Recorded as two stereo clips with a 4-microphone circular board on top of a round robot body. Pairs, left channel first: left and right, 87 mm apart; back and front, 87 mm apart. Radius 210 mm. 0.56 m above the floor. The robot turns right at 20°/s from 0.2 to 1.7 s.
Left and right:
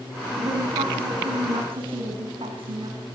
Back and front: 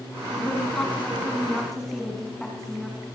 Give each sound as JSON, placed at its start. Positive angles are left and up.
{"t": 0.4, "sound": "a woman speaking", "azimuth_deg": -120, "distance_m": 6.0}